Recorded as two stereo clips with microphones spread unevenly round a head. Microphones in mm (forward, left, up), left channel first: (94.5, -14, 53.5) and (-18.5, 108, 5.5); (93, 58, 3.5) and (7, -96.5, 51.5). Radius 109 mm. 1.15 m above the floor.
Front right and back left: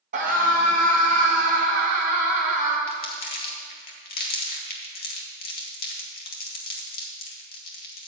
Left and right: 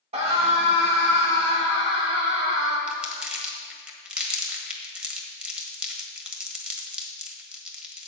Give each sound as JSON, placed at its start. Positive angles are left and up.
{"t": 0.1, "sound": "a scream", "azimuth_deg": 175, "distance_m": 2.0}
{"t": 2.9, "sound": "crumpling", "azimuth_deg": -40, "distance_m": 1.8}